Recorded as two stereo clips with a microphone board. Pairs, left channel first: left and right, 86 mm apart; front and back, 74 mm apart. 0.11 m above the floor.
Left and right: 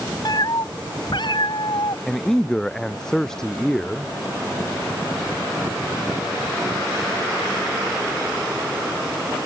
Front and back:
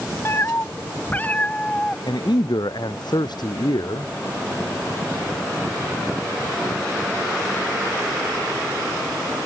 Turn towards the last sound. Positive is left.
turn(degrees=10)